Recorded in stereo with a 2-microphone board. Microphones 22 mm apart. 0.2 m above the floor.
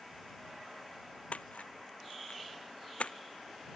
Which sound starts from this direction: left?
A splash, at 1.3 s.